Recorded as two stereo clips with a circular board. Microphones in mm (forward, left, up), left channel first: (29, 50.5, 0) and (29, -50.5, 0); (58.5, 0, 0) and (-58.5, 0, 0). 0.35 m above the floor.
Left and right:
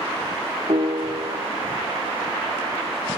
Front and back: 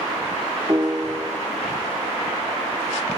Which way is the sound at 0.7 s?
115° right.